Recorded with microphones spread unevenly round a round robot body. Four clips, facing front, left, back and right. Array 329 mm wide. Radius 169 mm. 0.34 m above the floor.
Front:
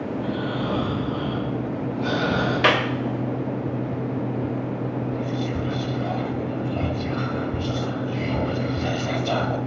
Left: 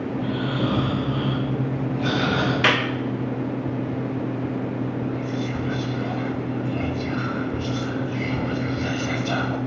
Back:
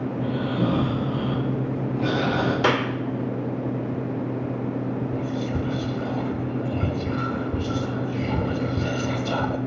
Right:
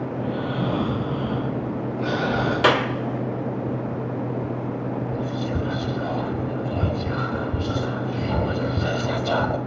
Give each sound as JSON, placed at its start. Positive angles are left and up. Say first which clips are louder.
{"t": 0.1, "sound": "snoring", "louder": "left 1 dB, front 1 dB", "azimuth_deg": 155, "distance_m": 8.5}
{"t": 2.6, "sound": "a clap", "louder": "right 5 dB, front 3 dB", "azimuth_deg": -120, "distance_m": 1.3}
{"t": 5.1, "sound": "whispering", "louder": "even, even", "azimuth_deg": -115, "distance_m": 1.2}